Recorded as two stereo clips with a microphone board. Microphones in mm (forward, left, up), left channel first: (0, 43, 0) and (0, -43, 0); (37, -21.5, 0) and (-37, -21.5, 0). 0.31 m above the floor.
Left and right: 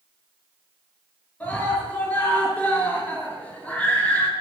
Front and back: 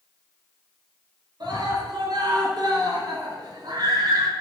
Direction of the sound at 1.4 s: 165° left.